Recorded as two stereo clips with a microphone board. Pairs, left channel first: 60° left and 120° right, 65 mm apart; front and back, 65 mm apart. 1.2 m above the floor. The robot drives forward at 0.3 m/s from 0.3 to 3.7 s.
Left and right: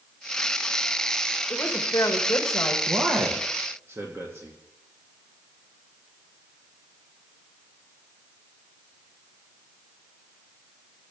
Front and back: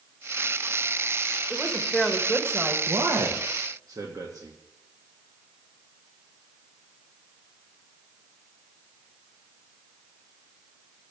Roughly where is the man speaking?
Behind.